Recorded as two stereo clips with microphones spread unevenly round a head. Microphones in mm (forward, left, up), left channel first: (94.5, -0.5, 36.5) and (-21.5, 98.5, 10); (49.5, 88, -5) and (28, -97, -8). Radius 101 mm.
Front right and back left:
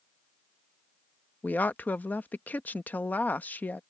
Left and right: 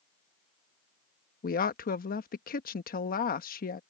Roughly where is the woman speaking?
Ahead left.